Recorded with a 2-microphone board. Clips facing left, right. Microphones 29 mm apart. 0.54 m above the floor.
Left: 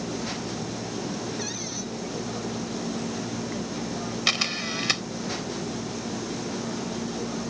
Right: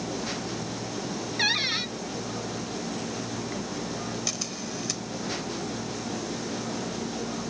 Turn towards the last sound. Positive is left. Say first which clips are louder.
# left 8 dB
turn(degrees=65)  # may be behind; listen again after turning